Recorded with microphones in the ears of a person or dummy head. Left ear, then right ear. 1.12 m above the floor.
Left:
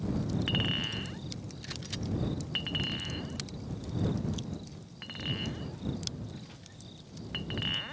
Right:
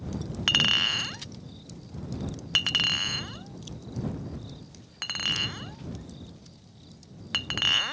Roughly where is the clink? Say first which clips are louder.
Right 11 dB; right.